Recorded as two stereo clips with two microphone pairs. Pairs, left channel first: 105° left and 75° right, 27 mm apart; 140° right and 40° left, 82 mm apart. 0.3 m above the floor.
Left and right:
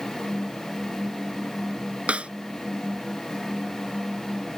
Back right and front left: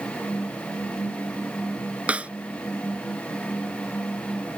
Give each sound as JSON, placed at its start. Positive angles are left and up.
{"t": 2.1, "sound": "a snare drum", "azimuth_deg": -35}